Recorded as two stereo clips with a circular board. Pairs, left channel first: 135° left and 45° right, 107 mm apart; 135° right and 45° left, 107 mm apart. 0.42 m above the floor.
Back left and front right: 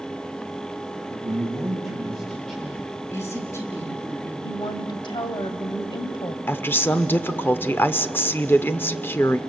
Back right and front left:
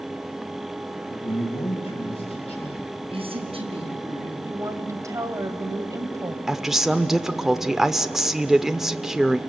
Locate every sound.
1.1 s a man speaking: 135° right, 3 m
3.1 s a woman speaking: 70° left, 4.5 m
4.4 s a woman speaking: 100° left, 1.7 m
6.5 s a woman speaking: 125° left, 0.8 m